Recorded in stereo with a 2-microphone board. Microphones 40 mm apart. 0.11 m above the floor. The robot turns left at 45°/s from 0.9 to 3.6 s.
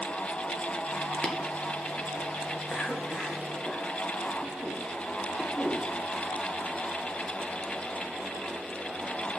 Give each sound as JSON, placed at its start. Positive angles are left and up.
{"t": 1.2, "sound": "tapping", "side_deg": 20, "distance_m": 1.7}
{"t": 2.7, "sound": "a cough", "side_deg": 20, "distance_m": 7.0}